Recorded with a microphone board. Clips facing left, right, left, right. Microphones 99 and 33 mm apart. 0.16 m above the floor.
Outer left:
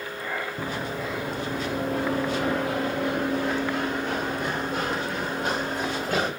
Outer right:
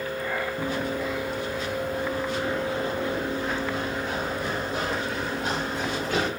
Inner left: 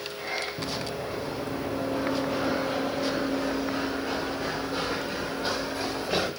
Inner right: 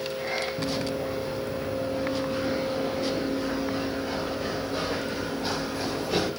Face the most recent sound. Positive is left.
turn(degrees=45)  # may be behind; listen again after turning